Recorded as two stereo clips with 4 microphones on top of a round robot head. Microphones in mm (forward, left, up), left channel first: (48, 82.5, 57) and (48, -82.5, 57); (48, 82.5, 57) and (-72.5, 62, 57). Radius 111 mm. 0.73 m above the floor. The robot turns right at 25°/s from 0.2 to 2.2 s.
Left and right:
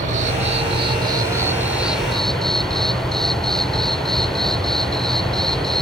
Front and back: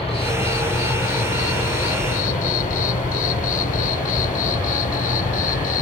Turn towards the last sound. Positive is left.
turn(degrees=5)